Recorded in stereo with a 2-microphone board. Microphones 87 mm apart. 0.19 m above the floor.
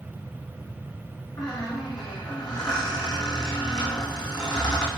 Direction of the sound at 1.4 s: 55° left (ahead or behind).